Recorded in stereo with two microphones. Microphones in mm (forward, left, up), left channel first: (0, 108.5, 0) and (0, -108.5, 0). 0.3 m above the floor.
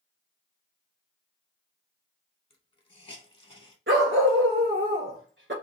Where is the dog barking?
65° right (ahead or behind), 1.1 m.